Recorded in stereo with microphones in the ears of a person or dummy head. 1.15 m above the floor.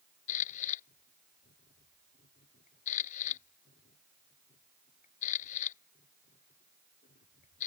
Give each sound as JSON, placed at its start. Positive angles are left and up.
{"t": 0.3, "sound": "a camera shutter", "side_deg": 45}